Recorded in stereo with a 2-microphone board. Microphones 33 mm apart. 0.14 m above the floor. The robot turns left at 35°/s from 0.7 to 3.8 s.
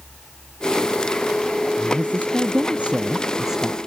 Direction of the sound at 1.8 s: 100° right.